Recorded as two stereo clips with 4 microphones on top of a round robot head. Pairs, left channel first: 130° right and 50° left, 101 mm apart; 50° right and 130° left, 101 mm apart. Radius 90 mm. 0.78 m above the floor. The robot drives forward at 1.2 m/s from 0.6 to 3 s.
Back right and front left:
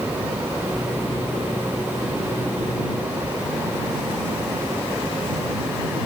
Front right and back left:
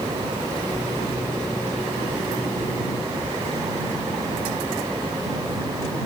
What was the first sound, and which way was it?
Only background noise.